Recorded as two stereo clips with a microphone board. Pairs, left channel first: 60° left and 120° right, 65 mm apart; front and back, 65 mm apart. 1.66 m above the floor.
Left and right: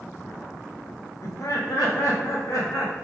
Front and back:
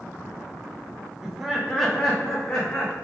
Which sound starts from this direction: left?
Laughter, at 1.2 s.